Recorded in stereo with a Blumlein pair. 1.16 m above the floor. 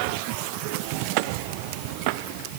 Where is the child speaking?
No child speaking in this recording.